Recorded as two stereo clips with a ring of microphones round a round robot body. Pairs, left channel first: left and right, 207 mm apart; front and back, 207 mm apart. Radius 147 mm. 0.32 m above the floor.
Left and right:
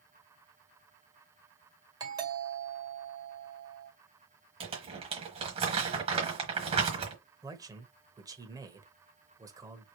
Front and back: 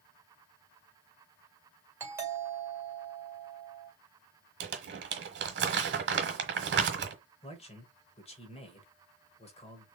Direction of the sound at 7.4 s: 30° right.